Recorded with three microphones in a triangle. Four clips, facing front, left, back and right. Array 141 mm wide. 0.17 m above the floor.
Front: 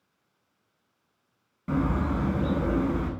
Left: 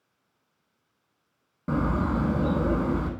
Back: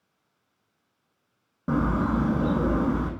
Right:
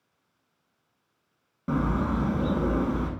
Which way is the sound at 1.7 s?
170° left.